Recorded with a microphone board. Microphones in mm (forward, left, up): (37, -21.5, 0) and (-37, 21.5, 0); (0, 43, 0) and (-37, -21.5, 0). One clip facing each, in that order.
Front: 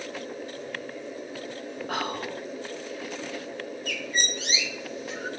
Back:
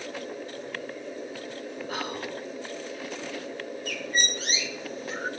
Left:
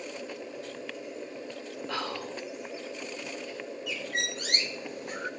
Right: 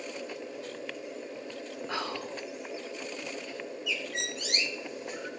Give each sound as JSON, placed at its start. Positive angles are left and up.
{"t": 1.9, "sound": "whispering", "azimuth_deg": -50, "distance_m": 1.9}
{"t": 3.9, "sound": "a bird", "azimuth_deg": 105, "distance_m": 0.7}